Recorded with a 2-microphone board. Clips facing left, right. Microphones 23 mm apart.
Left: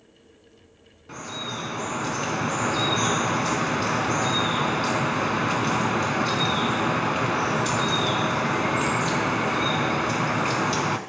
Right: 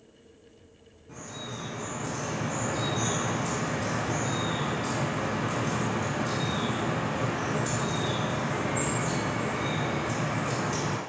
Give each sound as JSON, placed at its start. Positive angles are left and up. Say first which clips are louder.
{"t": 1.1, "sound": "dripping", "louder": "left 7 dB", "side_deg": 60, "distance_m": 0.7}